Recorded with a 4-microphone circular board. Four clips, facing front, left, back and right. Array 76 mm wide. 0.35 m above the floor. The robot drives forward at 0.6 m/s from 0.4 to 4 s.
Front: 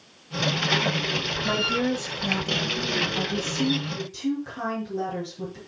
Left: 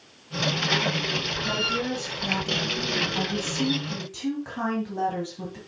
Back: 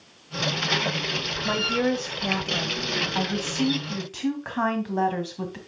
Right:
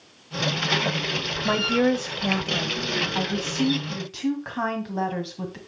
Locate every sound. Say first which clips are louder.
1.4 s a woman speaking: right 8 dB, back 1 dB; 90° right, 1.1 m; by 5.6 s 155° right, 1.9 m